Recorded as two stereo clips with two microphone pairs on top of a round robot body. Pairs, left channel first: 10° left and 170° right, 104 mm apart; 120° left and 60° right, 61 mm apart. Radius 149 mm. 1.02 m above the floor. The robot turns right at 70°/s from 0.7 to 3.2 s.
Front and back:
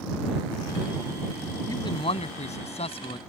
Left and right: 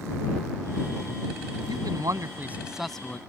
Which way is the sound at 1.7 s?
55° right.